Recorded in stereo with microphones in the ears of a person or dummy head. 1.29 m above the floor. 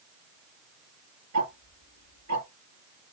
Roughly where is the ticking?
Right.